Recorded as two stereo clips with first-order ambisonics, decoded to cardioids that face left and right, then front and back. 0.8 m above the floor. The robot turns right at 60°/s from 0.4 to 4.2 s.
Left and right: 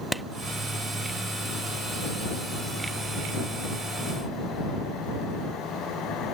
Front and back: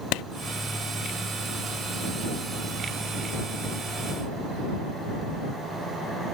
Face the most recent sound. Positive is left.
turn(degrees=-135)